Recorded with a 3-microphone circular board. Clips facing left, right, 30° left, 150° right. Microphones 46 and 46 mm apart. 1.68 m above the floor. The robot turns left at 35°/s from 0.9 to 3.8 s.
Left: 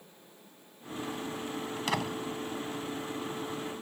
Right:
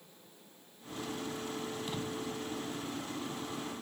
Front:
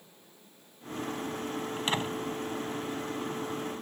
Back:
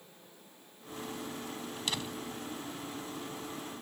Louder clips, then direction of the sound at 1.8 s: Left 5 dB, front 6 dB; 90° left.